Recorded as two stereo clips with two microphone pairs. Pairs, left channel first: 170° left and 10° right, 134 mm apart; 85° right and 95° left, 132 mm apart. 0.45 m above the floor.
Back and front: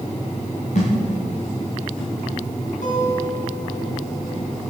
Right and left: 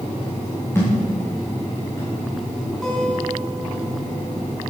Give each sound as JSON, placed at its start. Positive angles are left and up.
{"t": 0.8, "sound": "a thud", "azimuth_deg": -155, "distance_m": 7.5}
{"t": 2.8, "sound": "a guitar", "azimuth_deg": -170, "distance_m": 4.0}